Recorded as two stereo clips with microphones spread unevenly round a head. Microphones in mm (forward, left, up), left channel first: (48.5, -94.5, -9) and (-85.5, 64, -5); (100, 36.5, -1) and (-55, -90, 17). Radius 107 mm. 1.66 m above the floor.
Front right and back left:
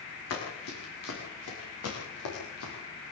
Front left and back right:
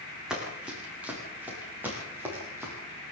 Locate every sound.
0.3 s running footsteps: 55° right, 8 m; by 2.7 s 65° right, 9.5 m